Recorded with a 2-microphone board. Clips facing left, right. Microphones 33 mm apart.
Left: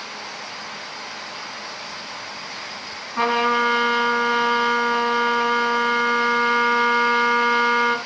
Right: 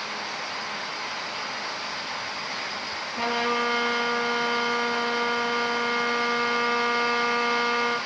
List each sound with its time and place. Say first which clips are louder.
3.2 s a trumpet: left 7 dB; 50° left (ahead or behind), 4 m